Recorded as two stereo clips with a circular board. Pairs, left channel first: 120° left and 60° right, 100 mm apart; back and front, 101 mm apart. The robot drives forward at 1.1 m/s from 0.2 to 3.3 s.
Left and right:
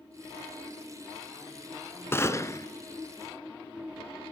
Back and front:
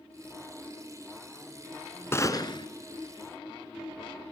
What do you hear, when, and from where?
2.1 s a gunshot: 155° left, 0.8 m; by 2.7 s 170° left, 1.1 m